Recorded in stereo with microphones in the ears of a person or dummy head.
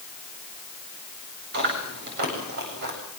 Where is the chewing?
55° right (ahead or behind), 8 m.